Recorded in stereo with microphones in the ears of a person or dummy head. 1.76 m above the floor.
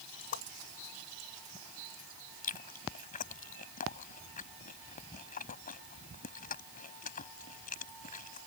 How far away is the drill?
No drill in this recording.